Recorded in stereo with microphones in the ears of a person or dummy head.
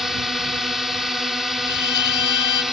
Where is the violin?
65° left (ahead or behind).